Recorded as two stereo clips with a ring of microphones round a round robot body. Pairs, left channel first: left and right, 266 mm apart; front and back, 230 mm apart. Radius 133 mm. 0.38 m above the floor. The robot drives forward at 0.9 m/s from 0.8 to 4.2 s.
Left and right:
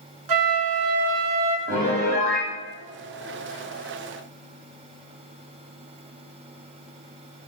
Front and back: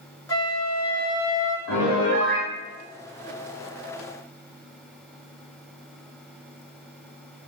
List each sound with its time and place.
0.3 s a flute: 80° right, 1.2 m; by 1.6 s 110° right, 1.2 m
1.7 s a piano: 30° right, 4.5 m; by 2.5 s 35° right, 4 m